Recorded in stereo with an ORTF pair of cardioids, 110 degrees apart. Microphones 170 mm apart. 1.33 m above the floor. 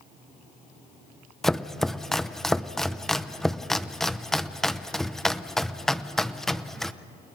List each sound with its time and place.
1.4 s chopping: straight ahead, 0.6 m